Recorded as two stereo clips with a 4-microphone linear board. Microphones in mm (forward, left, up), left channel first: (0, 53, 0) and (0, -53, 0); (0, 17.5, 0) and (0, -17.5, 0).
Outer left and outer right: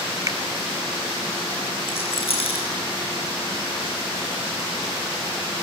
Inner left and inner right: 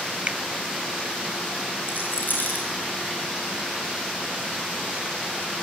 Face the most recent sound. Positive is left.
turn(degrees=65)  # may be behind; listen again after turning